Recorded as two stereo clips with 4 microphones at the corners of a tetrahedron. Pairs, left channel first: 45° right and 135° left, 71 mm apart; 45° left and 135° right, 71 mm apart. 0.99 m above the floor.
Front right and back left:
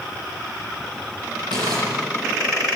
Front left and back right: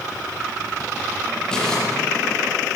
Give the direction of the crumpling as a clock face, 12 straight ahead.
8 o'clock.